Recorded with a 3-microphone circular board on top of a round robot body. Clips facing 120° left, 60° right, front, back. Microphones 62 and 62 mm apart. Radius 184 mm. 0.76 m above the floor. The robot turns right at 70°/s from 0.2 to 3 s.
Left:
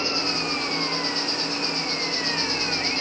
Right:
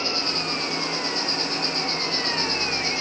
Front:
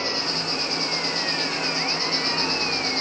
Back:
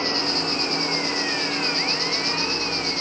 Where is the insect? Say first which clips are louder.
Left 1 dB, back 3 dB; straight behind, 1.0 m; by 3.0 s 15° left, 1.0 m.